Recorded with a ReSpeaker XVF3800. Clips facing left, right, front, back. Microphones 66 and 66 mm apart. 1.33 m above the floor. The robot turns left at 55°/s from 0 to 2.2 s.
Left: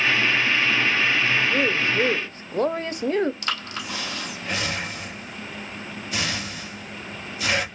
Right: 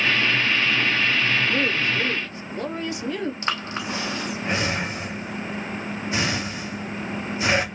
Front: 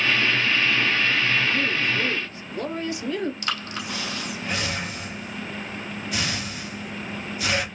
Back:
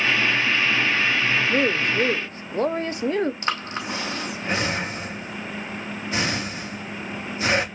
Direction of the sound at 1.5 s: 170° left.